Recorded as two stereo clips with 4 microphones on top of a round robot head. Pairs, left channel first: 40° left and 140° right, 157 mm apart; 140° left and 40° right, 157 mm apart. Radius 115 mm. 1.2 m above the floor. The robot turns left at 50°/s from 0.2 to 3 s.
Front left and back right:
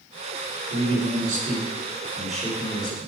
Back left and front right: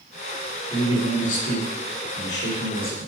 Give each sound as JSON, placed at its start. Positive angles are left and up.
{"t": 0.7, "sound": "a man speaking", "azimuth_deg": -150, "distance_m": 2.5}